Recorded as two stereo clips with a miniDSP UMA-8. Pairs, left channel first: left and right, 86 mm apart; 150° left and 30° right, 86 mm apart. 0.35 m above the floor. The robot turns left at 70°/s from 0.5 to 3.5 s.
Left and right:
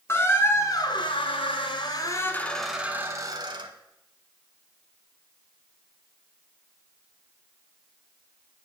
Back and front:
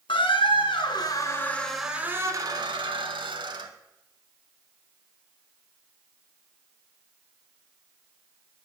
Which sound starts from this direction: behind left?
A squeak, at 0.1 s.